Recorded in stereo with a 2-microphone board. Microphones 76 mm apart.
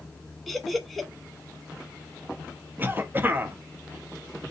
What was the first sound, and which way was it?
Laughter, centre (ahead or behind).